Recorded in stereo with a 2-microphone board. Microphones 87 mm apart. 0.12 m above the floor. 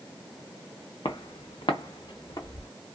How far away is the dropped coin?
No dropped coin in this recording.